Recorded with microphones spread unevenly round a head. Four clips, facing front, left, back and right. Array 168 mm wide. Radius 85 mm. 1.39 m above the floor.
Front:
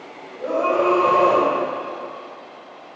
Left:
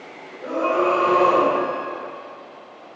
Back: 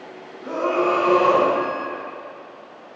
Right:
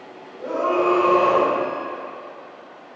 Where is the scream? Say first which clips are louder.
Even, front 2 dB; 10° right, 6.5 m.